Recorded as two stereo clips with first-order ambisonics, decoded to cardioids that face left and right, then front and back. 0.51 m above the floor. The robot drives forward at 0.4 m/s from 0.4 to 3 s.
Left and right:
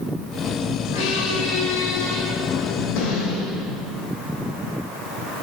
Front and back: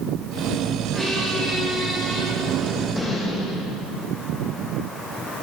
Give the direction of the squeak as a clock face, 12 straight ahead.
9 o'clock.